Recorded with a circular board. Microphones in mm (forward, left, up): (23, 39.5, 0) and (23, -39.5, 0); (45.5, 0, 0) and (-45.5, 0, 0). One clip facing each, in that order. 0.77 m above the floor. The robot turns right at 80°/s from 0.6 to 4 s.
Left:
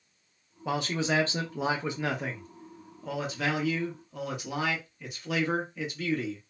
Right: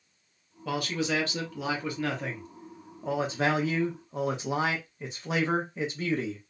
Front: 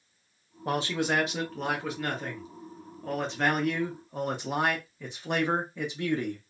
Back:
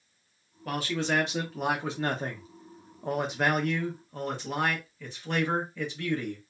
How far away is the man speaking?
About 0.8 m.